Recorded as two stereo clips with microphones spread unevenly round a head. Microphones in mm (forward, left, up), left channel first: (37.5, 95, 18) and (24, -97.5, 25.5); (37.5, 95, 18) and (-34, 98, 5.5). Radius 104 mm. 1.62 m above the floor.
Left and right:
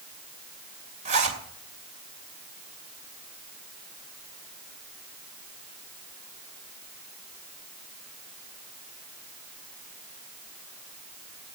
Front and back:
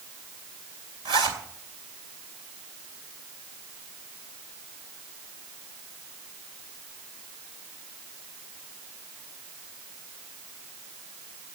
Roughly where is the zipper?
Behind right.